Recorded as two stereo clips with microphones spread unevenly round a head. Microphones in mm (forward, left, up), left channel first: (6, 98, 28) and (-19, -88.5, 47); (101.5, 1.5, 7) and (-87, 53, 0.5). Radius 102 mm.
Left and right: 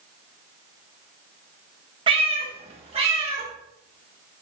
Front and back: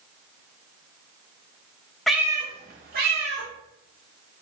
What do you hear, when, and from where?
2.1 s a cat meowing: 100° right, 1.1 m; by 3.5 s 160° right, 2.5 m